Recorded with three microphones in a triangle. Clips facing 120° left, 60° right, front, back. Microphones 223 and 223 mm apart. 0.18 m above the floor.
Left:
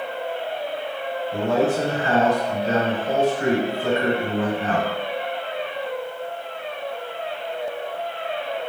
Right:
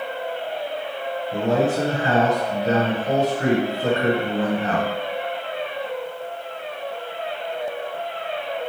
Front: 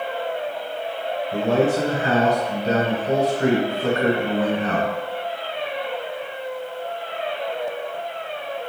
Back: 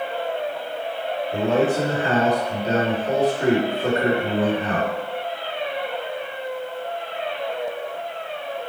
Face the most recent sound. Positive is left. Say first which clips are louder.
# even, front 1 dB
turn(degrees=-30)